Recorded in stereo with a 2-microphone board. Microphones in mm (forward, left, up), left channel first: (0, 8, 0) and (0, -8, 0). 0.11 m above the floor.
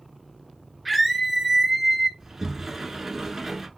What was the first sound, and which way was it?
A scream, centre (ahead or behind).